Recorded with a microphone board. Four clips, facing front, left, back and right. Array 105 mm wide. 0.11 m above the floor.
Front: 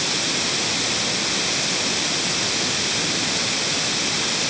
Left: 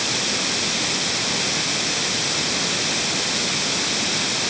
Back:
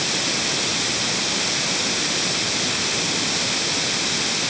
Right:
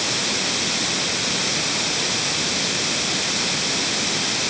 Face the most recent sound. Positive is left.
No sound to turn to.